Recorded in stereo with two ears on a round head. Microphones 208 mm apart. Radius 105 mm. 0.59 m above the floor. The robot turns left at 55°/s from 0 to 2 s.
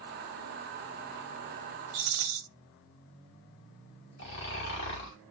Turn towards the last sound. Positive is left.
turn(degrees=50)  # may be behind; listen again after turning